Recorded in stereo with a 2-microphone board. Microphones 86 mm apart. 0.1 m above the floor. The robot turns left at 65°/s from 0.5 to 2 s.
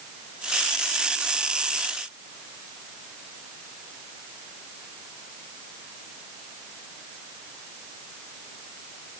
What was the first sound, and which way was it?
Only background noise.